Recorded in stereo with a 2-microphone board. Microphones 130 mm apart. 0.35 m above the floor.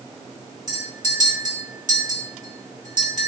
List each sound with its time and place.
0.7 s a clink: 65° left (ahead or behind), 1.8 m